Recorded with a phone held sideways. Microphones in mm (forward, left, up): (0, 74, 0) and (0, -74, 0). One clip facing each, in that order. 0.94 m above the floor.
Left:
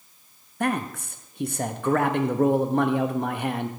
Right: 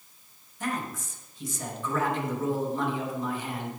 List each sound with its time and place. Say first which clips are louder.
0.6 s a man speaking: left 6 dB; 65° left (ahead or behind), 0.9 m